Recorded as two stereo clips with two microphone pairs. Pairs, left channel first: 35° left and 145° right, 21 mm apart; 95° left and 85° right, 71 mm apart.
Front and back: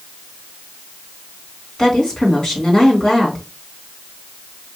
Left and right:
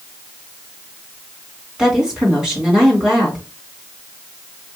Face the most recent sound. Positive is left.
turn(degrees=0)